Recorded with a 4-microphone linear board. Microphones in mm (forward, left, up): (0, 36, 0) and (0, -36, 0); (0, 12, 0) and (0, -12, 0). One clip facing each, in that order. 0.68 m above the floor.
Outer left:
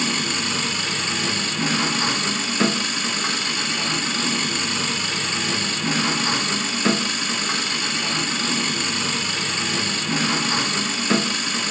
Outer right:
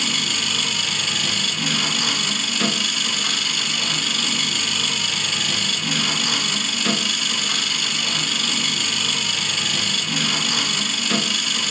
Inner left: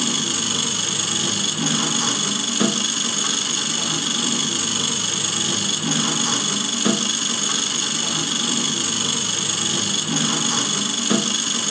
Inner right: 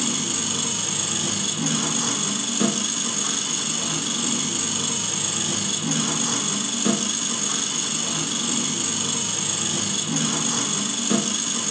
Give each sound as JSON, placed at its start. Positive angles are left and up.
{"t": 0.0, "sound": "an engine running", "side_deg": 30, "distance_m": 2.5}